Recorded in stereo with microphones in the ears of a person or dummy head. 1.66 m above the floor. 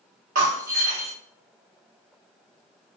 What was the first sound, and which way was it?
Breaking glass, 40° right (ahead or behind).